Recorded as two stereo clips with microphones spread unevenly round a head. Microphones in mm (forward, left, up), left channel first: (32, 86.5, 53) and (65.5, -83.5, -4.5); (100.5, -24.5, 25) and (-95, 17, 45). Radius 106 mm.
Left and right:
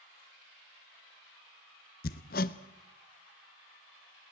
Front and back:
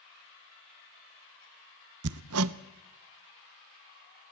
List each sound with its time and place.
2.0 s hammering: 150° left, 0.6 m